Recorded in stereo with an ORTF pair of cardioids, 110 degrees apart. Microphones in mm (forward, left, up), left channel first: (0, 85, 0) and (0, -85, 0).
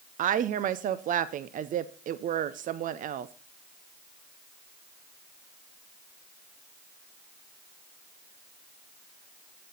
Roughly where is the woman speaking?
Ahead right.